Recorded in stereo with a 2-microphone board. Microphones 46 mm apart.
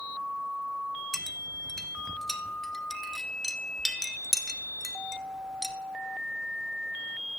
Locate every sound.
1.1 s a clink: 5° left (ahead or behind), 1.0 m